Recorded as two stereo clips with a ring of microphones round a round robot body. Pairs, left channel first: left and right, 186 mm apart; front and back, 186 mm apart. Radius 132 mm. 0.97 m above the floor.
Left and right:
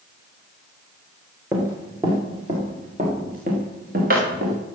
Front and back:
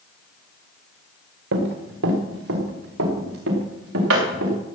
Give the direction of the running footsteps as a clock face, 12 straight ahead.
6 o'clock.